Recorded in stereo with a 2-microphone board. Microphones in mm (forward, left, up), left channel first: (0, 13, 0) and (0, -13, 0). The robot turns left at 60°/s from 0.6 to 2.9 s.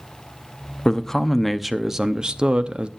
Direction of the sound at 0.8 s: 40° left.